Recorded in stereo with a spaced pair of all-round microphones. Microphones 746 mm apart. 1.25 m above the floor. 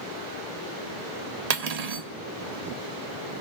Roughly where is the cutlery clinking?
Right.